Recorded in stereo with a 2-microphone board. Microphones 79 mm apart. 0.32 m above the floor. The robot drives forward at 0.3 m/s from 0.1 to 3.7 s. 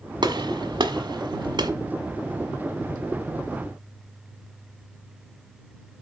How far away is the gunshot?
About 1.3 m.